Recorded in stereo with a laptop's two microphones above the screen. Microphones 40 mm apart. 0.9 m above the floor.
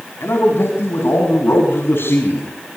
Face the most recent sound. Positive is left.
turn(degrees=70)  # may be behind; listen again after turning